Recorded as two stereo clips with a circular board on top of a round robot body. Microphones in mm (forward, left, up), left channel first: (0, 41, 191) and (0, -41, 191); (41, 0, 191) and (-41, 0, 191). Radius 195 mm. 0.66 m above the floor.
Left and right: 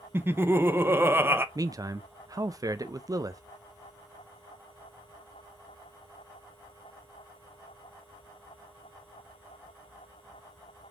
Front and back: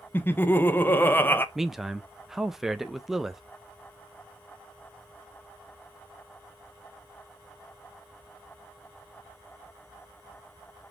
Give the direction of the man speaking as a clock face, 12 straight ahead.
3 o'clock.